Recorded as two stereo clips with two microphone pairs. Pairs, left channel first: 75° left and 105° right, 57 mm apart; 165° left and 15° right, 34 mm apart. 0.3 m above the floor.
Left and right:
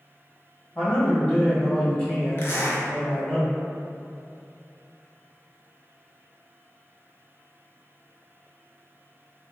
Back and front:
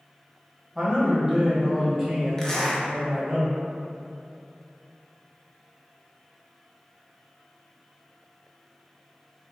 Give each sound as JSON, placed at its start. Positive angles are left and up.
{"t": 0.8, "sound": "a man speaking", "azimuth_deg": 45, "distance_m": 1.5}
{"t": 2.4, "sound": "a zipper", "azimuth_deg": 100, "distance_m": 0.6}